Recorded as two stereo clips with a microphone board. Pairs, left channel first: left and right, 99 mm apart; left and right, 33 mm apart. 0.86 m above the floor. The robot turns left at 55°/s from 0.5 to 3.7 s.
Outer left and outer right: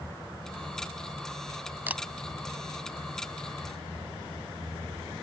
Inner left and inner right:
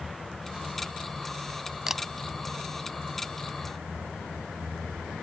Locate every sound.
1.9 s a camera shutter: 20° right (ahead or behind); by 2.0 s 15° right (ahead or behind)